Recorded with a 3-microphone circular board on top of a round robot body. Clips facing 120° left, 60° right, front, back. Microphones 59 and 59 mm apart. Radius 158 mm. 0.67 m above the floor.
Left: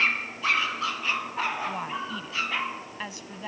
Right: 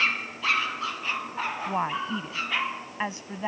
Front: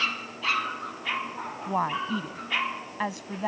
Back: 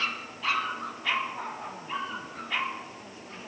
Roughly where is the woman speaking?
Ahead.